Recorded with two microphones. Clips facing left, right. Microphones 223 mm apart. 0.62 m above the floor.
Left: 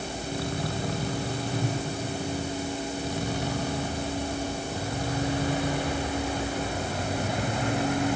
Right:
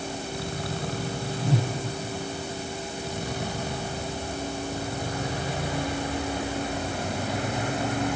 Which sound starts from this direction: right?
A whoosh, at 1.4 s.